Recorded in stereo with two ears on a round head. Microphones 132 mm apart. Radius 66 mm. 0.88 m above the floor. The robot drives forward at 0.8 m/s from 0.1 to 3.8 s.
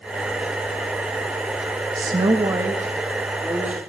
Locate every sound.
1.9 s a woman speaking: 25° right (ahead or behind), 0.7 m; by 3.8 s 10° right (ahead or behind), 1.8 m